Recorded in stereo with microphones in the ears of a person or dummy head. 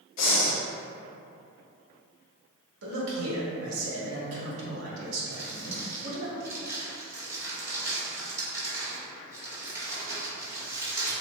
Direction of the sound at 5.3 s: 20° right (ahead or behind).